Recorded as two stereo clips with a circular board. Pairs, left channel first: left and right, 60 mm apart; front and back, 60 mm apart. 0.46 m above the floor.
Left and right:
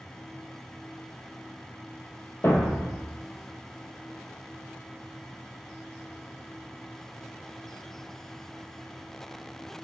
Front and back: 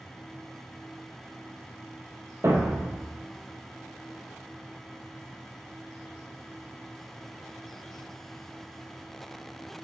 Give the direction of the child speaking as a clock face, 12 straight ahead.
No child speaking in this recording.